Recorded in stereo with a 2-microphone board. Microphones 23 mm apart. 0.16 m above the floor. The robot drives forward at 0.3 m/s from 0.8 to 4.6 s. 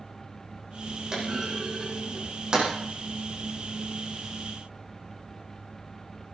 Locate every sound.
1.1 s a clunk: 30° right (ahead or behind), 8 m